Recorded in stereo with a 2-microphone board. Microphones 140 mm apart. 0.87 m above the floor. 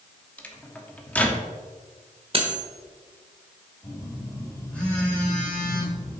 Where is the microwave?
10° left (ahead or behind), 1.2 m.